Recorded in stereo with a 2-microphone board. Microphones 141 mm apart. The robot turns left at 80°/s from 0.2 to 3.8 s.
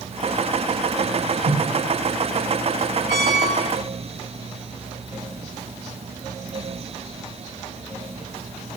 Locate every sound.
1.4 s a whoosh: 85° right, 6.5 m; by 1.6 s 80° right, 6.5 m
3.1 s a squeak: 95° left, 2.5 m; by 3.9 s 35° left, 2.5 m